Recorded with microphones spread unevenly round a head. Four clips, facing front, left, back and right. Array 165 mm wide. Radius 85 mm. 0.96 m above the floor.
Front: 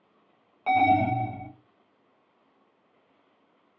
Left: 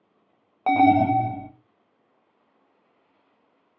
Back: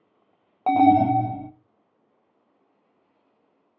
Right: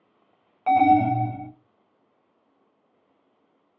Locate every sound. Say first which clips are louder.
0.7 s an alarm: even, back 5 dB; 145° left, 0.5 m